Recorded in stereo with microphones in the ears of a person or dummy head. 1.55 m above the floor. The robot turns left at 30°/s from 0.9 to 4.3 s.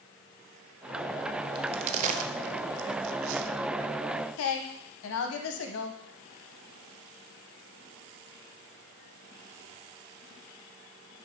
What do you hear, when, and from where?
1.6 s a crack: 30° right (ahead or behind), 0.6 m; by 3.5 s 80° right, 0.6 m
4.4 s a woman speaking: 75° left (ahead or behind), 1.0 m